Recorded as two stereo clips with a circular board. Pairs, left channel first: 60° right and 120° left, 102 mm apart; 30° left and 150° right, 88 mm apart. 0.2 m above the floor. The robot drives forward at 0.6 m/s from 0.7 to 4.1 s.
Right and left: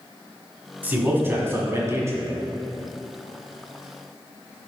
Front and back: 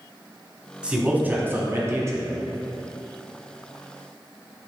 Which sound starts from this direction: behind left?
A man speaking, at 0.8 s.